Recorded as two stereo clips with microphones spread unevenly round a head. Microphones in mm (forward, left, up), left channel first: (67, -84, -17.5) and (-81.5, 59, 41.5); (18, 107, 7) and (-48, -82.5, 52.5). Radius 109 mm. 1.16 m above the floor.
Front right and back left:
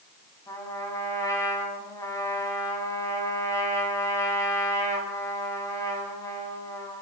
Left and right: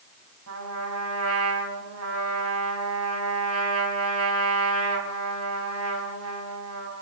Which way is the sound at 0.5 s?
120° right.